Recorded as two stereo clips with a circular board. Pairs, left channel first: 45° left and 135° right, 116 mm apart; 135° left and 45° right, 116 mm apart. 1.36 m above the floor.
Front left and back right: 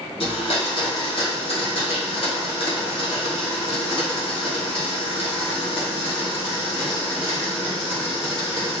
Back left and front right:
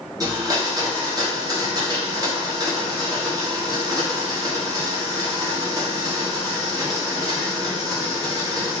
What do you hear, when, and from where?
0.2 s a blender: 10° left, 1.0 m